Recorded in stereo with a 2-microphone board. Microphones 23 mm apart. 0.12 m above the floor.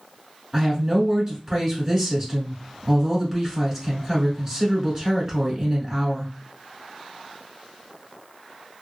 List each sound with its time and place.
0.5 s a woman speaking: 25° right (ahead or behind), 1.7 m